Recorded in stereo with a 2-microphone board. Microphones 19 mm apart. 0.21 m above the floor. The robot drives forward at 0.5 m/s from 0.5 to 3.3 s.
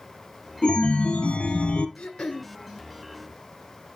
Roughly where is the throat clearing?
Left.